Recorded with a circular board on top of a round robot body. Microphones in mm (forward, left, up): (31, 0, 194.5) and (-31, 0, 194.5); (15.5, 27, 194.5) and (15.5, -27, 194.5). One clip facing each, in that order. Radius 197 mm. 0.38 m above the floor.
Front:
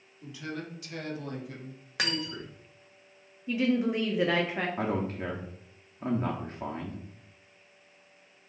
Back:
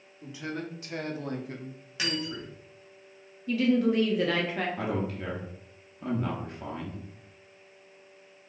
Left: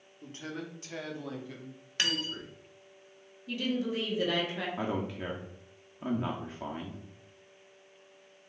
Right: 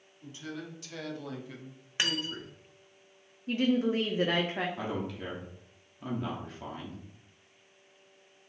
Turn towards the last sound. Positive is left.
turn(degrees=30)